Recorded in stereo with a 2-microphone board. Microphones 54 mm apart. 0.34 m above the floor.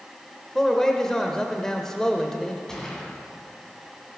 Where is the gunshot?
10° left (ahead or behind), 2.5 m.